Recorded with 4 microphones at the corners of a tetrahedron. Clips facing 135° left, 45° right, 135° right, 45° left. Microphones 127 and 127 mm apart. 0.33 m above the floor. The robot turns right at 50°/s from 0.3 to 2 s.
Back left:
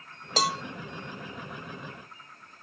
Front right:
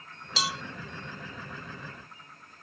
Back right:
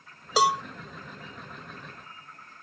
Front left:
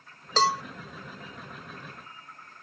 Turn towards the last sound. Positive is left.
turn(degrees=-125)